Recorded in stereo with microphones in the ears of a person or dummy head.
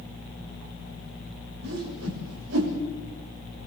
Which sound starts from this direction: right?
A whoosh, at 1.6 s.